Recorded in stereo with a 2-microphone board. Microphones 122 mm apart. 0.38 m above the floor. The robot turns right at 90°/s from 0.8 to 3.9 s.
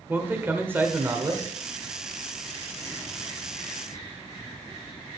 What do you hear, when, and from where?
0.1 s a man speaking: 145° right, 1.1 m; by 1.5 s 80° right, 1.1 m